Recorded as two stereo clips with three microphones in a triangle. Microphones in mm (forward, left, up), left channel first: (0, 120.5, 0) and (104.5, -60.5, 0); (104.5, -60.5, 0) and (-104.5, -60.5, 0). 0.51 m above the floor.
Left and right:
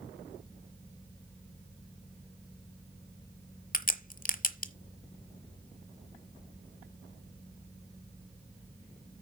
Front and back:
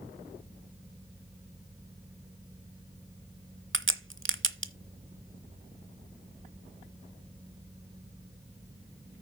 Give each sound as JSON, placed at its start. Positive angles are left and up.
{"t": 3.7, "sound": "a crack", "azimuth_deg": 165, "distance_m": 0.7}